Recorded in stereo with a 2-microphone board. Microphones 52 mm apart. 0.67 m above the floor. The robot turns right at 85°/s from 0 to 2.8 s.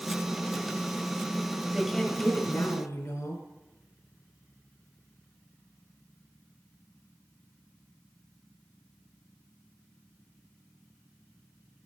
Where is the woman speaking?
10° right, 4 m; by 3.4 s 85° left, 4 m.